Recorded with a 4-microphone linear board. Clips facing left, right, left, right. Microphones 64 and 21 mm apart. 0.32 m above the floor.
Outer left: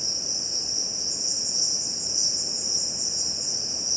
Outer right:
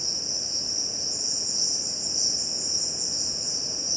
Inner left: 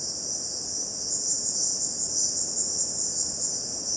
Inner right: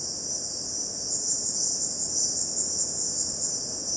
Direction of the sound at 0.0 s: 15° left (ahead or behind).